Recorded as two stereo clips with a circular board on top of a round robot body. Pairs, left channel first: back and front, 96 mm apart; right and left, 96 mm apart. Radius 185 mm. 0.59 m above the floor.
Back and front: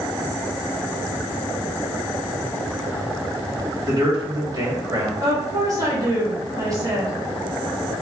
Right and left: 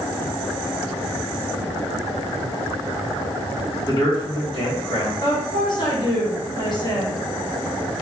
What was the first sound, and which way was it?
A man speaking, 40° right.